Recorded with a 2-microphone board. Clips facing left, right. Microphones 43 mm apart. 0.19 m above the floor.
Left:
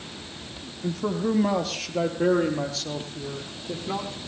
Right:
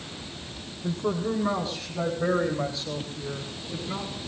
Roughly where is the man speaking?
Left.